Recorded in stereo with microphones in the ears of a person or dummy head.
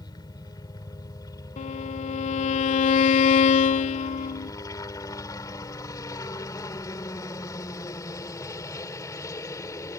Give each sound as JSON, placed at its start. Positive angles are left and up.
{"t": 0.0, "sound": "a helicopter", "side_deg": 20}
{"t": 1.6, "sound": "a violin", "side_deg": 40}